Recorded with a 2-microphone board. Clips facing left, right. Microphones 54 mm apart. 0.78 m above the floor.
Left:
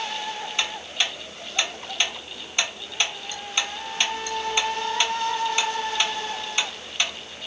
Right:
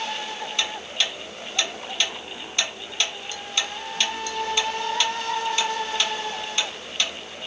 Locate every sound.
0.6 s ticking: 20° left (ahead or behind), 1.3 m